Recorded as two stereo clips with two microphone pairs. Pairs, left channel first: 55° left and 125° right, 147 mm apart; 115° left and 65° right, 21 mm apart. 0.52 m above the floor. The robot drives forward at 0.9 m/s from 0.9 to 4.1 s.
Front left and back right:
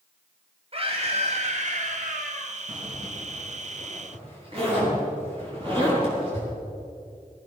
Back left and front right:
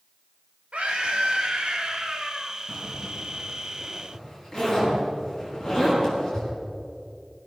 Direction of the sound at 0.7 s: 75° right.